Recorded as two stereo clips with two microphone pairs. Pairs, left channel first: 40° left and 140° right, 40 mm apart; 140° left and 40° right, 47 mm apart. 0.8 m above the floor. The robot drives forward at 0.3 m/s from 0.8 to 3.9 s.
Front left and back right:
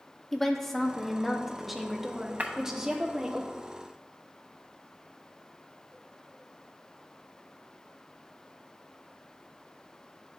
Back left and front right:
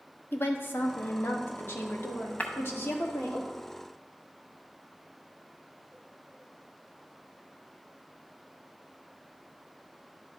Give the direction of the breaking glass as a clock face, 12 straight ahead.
6 o'clock.